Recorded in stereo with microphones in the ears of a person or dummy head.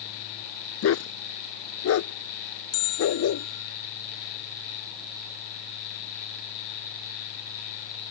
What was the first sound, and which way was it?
A dog barking, 80° left.